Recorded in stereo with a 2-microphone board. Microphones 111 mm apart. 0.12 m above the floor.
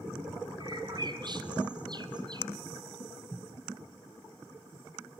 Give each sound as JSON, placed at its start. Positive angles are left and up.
{"t": 0.6, "sound": "a bird", "side_deg": -40, "distance_m": 1.3}